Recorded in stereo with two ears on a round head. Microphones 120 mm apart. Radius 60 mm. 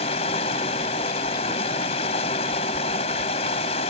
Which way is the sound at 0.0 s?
50° left (ahead or behind).